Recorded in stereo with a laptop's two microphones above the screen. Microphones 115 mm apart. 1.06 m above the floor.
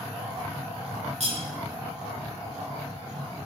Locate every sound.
1.2 s cutlery clinking: 60° right (ahead or behind), 1.3 m